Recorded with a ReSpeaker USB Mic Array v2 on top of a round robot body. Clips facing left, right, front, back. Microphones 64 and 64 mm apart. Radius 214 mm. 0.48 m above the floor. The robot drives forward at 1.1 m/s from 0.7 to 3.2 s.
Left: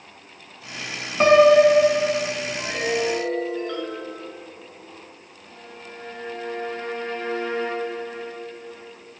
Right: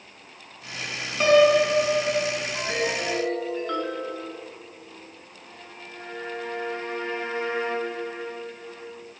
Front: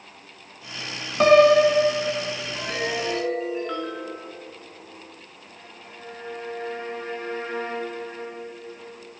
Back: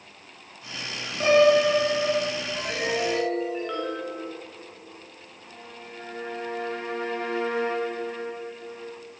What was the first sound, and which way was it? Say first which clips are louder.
A piano: left 4 dB, front 4 dB; 30° left.